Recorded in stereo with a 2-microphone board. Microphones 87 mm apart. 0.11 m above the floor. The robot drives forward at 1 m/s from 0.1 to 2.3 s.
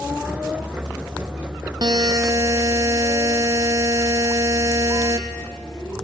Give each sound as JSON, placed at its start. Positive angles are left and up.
{"t": 1.8, "sound": "a buzzer", "side_deg": -60, "distance_m": 0.8}